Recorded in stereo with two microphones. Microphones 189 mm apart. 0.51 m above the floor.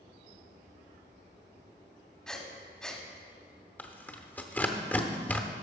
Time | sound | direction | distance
2.3 | breathing | 5° left (ahead or behind) | 1.3 m
3.8 | tearing paper | 10° left (ahead or behind) | 0.8 m